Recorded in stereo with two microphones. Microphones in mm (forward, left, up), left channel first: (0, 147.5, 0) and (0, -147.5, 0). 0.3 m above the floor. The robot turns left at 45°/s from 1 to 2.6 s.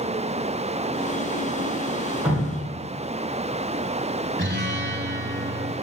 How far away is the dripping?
About 2.5 m.